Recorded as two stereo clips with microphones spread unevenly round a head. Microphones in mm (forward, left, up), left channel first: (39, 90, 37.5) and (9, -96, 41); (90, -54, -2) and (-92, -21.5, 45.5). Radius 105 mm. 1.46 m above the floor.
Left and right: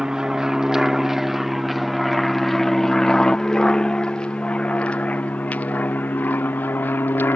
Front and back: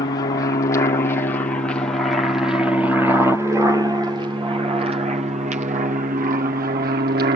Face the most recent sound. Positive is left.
turn(degrees=155)